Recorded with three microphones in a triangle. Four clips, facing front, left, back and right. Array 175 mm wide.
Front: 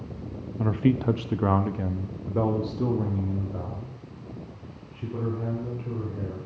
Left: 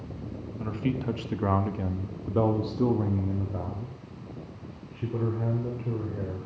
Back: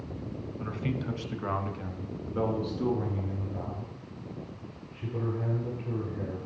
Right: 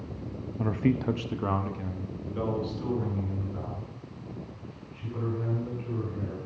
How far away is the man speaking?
About 0.7 m.